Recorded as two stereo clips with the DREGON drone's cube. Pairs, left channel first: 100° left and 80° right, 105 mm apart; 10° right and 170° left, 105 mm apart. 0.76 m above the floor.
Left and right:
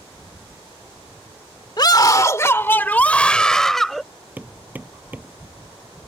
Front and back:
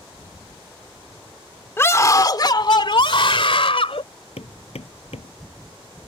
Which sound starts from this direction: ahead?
Hammering, at 4.4 s.